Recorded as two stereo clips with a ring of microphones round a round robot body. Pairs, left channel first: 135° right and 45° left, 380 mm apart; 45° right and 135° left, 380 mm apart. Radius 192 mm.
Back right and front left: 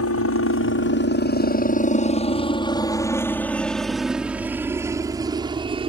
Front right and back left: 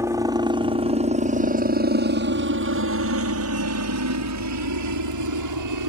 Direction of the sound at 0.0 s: 145° right.